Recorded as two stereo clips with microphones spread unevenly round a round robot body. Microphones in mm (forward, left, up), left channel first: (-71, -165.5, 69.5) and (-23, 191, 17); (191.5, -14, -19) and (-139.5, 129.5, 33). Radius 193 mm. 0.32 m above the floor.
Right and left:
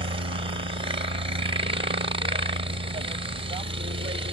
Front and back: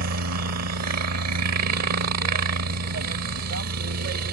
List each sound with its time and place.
0.0 s a helicopter: 135° left